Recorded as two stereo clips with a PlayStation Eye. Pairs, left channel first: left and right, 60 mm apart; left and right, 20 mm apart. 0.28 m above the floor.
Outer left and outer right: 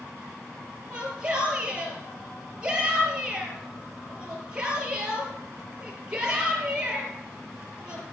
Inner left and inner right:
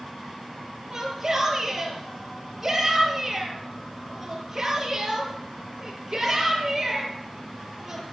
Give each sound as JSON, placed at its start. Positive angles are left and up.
{"t": 0.9, "sound": "a shout", "side_deg": -15, "distance_m": 5.0}